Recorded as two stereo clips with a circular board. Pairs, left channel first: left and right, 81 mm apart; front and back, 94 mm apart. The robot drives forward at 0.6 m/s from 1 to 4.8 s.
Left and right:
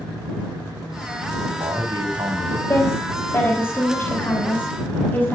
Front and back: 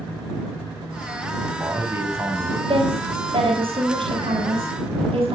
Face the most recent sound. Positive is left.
turn(degrees=160)